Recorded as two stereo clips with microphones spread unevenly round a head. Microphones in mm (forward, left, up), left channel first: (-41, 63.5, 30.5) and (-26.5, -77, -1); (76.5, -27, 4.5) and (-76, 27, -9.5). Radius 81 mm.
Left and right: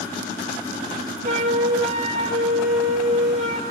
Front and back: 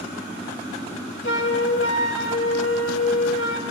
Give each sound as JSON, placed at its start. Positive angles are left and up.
{"t": 1.2, "sound": "a flute", "azimuth_deg": -35, "distance_m": 4.0}